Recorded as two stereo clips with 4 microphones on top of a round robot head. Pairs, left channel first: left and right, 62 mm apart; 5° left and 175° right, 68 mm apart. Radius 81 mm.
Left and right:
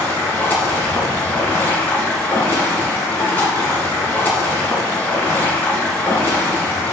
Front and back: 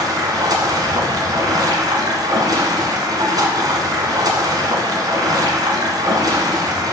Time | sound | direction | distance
0.0 | running water | 160° left | 1.7 m